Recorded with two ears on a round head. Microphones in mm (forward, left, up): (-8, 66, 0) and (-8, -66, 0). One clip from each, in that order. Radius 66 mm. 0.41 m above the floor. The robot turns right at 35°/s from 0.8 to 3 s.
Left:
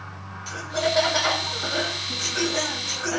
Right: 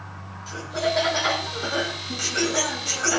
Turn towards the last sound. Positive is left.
turn(degrees=-150)